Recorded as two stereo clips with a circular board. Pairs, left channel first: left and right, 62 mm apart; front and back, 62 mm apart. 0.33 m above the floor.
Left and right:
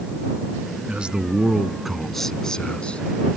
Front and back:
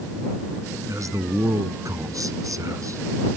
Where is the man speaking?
160° right; by 3.0 s 160° left.